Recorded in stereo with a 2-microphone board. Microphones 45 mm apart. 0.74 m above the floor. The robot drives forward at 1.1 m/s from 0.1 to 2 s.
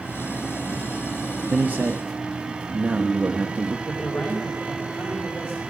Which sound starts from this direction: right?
A man speaking, at 1.5 s.